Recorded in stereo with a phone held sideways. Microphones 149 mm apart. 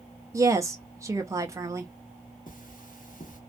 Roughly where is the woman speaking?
Right.